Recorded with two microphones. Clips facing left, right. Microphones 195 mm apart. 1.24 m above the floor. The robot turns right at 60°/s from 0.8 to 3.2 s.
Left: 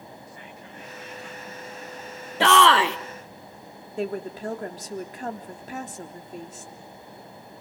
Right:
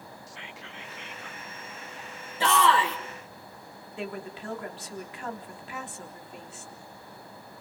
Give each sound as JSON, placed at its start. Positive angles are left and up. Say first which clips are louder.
{"t": 0.3, "sound": "whispering", "louder": "left 2 dB", "azimuth_deg": -90, "distance_m": 1.2}
{"t": 2.4, "sound": "a shout", "louder": "left 5 dB", "azimuth_deg": 75, "distance_m": 1.6}
{"t": 4.0, "sound": "a woman speaking", "louder": "left 7 dB", "side_deg": 40, "distance_m": 3.5}